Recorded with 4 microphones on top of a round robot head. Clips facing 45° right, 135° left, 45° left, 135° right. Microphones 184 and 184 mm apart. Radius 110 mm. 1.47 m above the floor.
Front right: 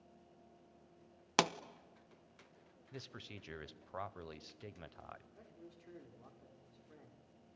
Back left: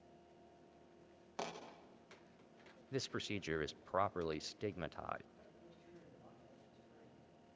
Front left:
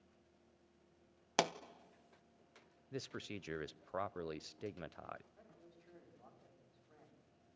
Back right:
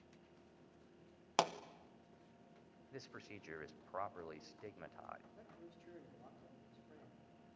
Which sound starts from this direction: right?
A man speaking, at 5.3 s.